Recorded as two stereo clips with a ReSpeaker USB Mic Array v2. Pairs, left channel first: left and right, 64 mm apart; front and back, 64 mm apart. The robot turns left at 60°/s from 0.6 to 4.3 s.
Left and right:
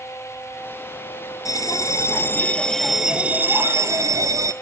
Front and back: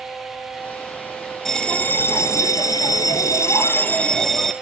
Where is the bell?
85° left, 0.5 m; by 4.5 s 85° right, 0.5 m.